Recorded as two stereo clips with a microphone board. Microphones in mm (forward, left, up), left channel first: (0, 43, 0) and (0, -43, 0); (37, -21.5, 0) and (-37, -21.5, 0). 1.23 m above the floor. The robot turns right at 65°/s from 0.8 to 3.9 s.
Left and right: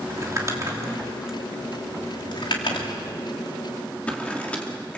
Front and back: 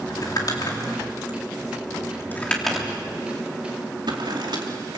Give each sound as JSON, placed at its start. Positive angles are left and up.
{"t": 0.1, "sound": "crumpling", "azimuth_deg": -35, "distance_m": 3.0}